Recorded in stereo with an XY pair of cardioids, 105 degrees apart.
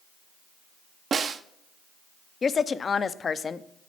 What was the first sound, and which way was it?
A snare drum, 45° right.